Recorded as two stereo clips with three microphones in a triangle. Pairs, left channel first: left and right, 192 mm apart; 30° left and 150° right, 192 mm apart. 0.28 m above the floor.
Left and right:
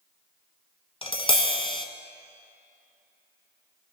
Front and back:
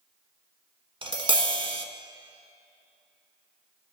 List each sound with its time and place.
1.0 s tapping: 150° left, 1.2 m